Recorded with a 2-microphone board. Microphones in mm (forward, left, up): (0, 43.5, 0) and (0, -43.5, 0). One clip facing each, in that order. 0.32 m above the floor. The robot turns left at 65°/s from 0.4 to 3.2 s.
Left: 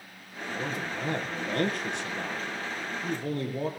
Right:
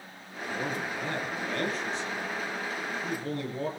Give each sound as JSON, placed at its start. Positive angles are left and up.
{"t": 0.5, "sound": "a man speaking", "azimuth_deg": -155, "distance_m": 9.0}